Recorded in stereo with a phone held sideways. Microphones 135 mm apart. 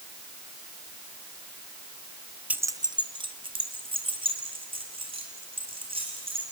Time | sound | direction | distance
2.5 | keys jangling | 10° right (ahead or behind) | 0.5 m